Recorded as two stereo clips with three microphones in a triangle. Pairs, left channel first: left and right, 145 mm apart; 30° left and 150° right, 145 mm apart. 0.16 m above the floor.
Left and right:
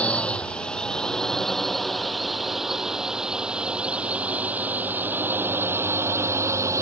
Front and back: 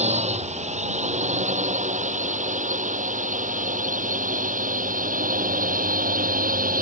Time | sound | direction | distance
0.0 | a drone | 170° left | ?